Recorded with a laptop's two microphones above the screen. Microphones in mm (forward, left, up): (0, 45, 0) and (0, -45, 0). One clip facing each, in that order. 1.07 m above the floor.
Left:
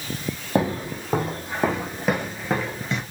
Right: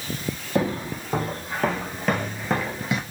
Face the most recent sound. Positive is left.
turn(degrees=-10)  # may be behind; listen again after turning